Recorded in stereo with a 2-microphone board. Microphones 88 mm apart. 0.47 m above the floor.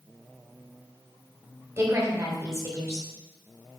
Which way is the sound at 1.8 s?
30° right (ahead or behind).